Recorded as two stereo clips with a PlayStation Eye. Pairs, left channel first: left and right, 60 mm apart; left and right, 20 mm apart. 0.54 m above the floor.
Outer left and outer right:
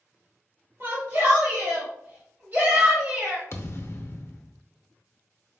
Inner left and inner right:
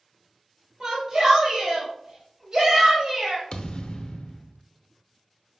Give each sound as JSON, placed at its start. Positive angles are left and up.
{"t": 0.8, "sound": "a shout", "side_deg": -45, "distance_m": 1.4}
{"t": 3.5, "sound": "a thud", "side_deg": 45, "distance_m": 0.6}